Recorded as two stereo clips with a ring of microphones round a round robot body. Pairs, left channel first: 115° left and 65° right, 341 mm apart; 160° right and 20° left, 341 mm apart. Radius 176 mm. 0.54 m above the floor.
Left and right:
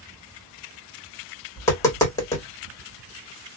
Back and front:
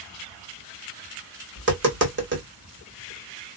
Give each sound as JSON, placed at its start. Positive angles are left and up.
{"t": 1.6, "sound": "tapping", "azimuth_deg": 40, "distance_m": 1.3}